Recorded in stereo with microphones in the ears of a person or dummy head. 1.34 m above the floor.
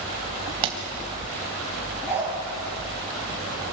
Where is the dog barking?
10° right (ahead or behind), 5.5 m.